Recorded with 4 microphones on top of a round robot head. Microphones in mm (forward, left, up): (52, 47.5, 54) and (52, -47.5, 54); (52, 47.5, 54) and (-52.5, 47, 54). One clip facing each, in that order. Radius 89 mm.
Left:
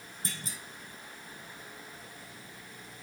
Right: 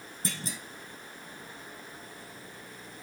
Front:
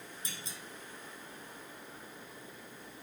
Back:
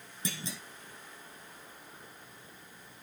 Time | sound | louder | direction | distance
0.2 | a clunk | right 5 dB, back 11 dB | 135° right | 0.7 m